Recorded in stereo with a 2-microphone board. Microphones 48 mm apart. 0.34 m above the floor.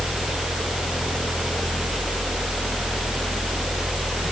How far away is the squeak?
I don't hear a squeak.